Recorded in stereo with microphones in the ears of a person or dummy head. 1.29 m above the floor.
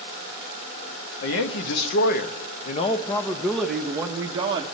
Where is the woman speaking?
70° left (ahead or behind), 1.4 m; by 4.7 s 25° right (ahead or behind), 1.2 m.